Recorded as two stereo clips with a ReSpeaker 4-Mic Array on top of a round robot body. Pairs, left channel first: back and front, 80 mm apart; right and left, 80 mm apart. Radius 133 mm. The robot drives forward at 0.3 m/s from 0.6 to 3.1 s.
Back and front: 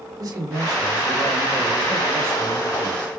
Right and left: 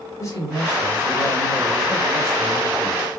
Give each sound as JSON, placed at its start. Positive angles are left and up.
{"t": 0.2, "sound": "a man speaking", "azimuth_deg": -45, "distance_m": 2.0}